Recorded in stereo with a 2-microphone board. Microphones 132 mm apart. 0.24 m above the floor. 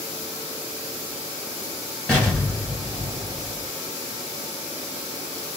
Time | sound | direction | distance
2.1 | an explosion | 5° left (ahead or behind) | 1.7 m